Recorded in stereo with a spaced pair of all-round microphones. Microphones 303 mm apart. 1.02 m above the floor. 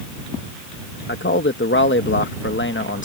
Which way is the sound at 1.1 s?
40° left (ahead or behind).